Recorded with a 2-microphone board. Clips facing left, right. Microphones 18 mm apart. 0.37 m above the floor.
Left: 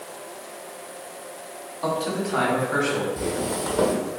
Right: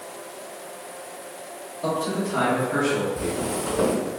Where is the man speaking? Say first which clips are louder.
Even; 60° left (ahead or behind), 1.9 m; by 3.1 s 55° left (ahead or behind), 1.8 m.